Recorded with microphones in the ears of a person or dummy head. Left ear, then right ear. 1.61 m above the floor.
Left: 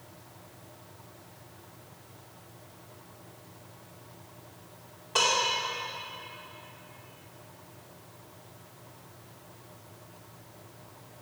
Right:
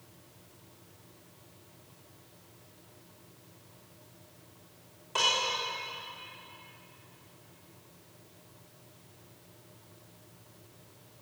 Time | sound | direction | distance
5.2 | dishes clattering | centre (ahead or behind) | 2.5 m